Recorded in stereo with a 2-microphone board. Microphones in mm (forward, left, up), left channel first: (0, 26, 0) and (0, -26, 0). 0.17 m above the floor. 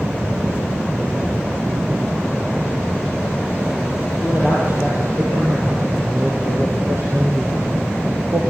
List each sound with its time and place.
4.2 s a man speaking: 35° right (ahead or behind), 5.5 m; by 8.4 s 65° right (ahead or behind), 3.5 m